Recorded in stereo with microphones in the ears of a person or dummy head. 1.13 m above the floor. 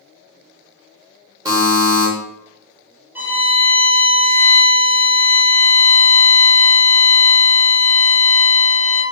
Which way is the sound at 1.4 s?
15° right (ahead or behind).